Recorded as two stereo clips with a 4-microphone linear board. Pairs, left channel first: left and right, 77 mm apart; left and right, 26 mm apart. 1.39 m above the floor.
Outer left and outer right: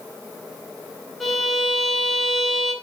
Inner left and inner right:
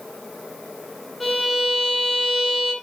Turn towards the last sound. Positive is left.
turn(degrees=0)  # may be behind; listen again after turning